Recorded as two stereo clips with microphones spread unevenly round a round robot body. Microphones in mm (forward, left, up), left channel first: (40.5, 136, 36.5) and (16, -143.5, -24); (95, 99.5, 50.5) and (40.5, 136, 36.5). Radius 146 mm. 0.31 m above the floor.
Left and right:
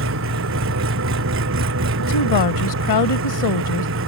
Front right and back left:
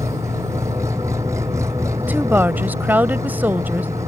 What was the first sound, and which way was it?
An engine running, 145° right.